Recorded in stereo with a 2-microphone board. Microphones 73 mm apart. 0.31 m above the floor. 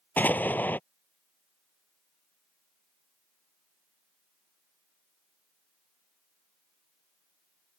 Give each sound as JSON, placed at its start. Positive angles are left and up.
{"t": 0.2, "sound": "an explosion", "side_deg": 25}